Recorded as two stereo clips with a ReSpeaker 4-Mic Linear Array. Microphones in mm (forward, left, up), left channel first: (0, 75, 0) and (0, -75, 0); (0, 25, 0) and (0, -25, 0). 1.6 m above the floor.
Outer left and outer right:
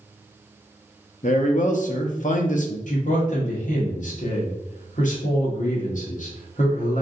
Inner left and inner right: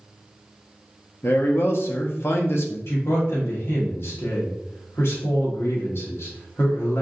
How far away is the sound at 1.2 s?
About 0.6 m.